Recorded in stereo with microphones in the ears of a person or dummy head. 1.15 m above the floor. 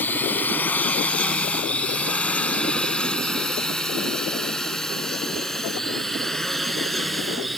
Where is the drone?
10° left (ahead or behind); by 7.6 s centre (ahead or behind).